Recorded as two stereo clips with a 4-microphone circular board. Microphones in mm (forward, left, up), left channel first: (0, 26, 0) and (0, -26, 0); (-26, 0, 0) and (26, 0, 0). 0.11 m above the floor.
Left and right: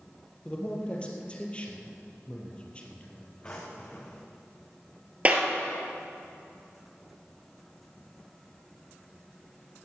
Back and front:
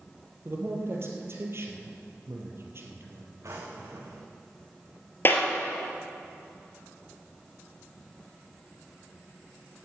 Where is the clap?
145° right, 1.9 m.